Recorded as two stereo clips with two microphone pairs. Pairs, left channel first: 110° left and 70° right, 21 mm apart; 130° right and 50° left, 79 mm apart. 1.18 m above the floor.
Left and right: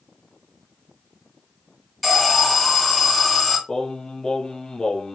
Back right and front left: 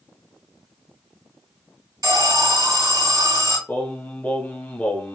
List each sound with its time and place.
2.0 s an alarm: 20° left, 2.0 m
3.7 s singing: 160° left, 0.7 m